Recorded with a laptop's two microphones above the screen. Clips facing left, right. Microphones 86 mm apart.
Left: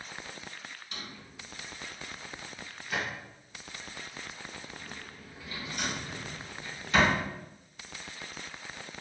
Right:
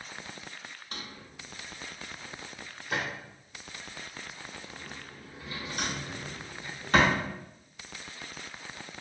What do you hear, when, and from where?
0.9 s a drawer: 45° right (ahead or behind), 0.7 m